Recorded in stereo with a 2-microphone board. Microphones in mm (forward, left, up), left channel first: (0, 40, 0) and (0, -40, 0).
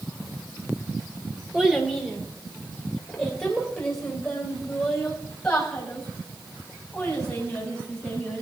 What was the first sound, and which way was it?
A child speaking, 5° right (ahead or behind).